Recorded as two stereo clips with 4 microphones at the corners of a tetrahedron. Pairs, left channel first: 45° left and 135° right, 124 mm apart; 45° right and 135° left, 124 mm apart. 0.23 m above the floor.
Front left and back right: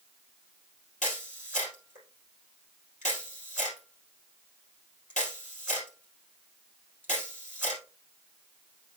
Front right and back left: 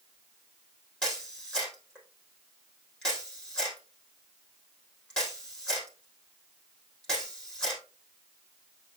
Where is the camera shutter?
40° left, 3.5 m.